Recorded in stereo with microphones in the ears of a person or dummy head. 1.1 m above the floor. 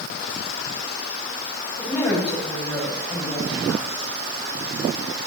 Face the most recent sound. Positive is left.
turn(degrees=10)  # may be behind; listen again after turning